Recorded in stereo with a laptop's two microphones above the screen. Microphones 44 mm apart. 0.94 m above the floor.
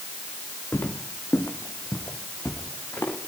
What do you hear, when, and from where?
0.7 s footsteps: 70° left (ahead or behind), 3 m